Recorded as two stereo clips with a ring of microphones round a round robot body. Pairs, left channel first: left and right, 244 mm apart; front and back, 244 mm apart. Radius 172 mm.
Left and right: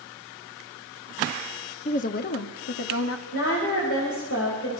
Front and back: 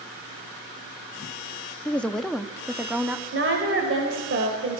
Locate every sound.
1.9 s a woman speaking: 75° left, 1.0 m; by 3.2 s 100° left, 1.7 m
3.3 s a woman speaking: 145° left, 3 m